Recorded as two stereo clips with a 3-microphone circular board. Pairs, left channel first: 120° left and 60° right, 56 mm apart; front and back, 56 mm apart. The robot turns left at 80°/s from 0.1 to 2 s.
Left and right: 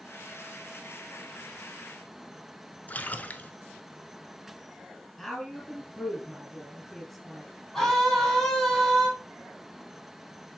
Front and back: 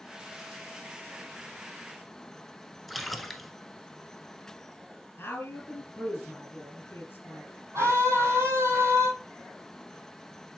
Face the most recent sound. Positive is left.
turn(degrees=-155)